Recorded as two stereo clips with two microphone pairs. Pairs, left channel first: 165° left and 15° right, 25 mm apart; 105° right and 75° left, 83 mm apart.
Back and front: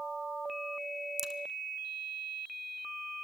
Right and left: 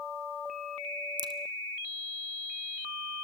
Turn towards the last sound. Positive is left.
turn(degrees=55)